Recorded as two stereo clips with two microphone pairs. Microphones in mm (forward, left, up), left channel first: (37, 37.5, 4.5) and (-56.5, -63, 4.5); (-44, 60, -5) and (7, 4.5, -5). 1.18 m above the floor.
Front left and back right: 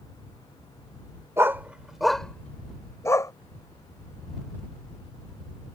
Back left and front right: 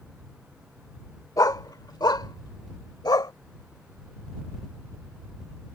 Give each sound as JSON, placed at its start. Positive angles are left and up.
{"t": 1.4, "sound": "a dog barking", "azimuth_deg": 160}